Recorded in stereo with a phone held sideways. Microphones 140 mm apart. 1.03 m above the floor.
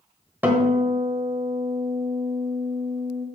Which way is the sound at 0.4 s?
10° right (ahead or behind).